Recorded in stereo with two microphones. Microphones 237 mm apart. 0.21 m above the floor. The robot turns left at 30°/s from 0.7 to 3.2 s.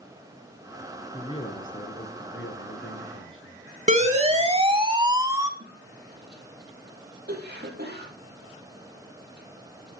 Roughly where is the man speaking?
Behind left.